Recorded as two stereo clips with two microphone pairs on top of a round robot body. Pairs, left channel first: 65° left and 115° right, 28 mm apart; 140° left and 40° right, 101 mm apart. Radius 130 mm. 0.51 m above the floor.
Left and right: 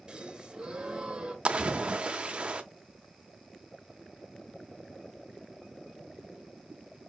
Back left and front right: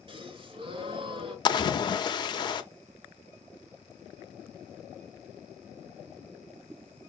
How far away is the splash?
About 0.7 m.